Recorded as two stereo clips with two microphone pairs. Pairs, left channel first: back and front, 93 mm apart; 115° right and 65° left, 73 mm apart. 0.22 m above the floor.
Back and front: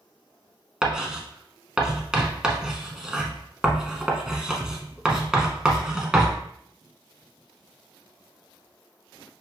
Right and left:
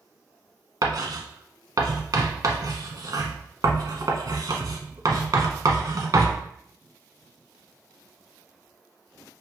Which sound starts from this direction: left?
Writing, at 0.8 s.